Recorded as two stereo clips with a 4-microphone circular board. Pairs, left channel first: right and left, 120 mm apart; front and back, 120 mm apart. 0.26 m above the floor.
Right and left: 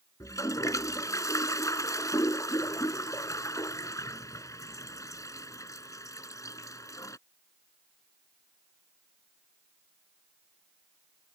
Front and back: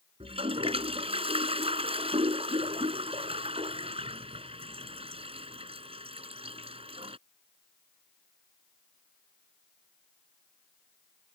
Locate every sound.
0.2 s a toilet flushing: 150° right